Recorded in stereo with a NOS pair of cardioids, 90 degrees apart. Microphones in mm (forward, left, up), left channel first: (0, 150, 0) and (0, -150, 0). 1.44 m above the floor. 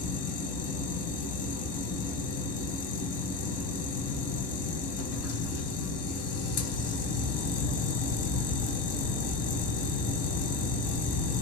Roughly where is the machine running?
Ahead left.